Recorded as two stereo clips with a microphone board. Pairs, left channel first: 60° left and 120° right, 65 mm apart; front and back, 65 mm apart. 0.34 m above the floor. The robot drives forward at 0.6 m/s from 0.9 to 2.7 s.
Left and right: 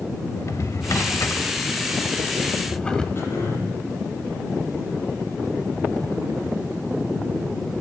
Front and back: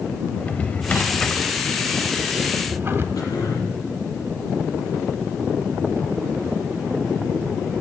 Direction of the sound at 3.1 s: 10° left.